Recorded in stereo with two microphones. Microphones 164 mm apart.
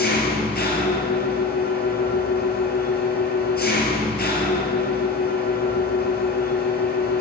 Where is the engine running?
70° left (ahead or behind), 1.4 m.